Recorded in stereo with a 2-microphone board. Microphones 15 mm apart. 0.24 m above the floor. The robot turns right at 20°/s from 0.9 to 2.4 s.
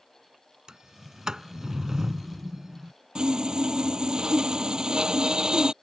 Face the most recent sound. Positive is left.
turn(degrees=-70)  # may be behind; listen again after turning